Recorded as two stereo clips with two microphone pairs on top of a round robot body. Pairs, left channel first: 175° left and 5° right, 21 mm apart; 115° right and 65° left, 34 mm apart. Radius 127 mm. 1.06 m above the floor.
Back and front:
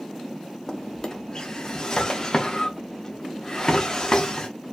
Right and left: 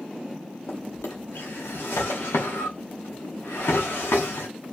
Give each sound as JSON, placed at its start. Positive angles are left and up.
{"t": 0.7, "sound": "a drawer", "azimuth_deg": -120, "distance_m": 1.1}